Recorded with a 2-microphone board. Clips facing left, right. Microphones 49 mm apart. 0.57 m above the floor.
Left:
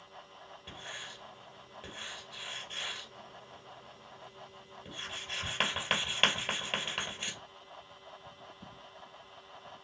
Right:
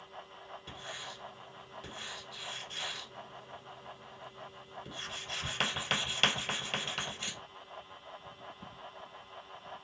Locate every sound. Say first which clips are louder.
0.7 s writing: left 1 dB; 20° left (ahead or behind), 1.9 m